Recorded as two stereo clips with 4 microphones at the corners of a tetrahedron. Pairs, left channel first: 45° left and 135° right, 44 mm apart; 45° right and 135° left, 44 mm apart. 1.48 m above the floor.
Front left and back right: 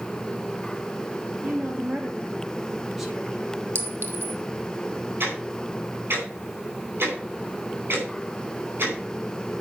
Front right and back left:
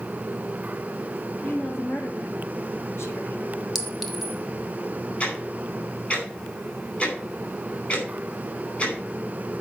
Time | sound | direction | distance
1.4 | a woman speaking | 75° right | 3.5 m
3.8 | a clink | 135° right | 1.4 m
5.2 | ticking | 100° right | 4.5 m